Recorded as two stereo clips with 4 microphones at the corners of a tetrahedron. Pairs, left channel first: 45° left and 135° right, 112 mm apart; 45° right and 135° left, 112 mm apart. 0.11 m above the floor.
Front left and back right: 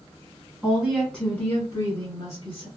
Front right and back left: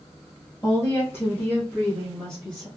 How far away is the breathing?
I don't hear breathing.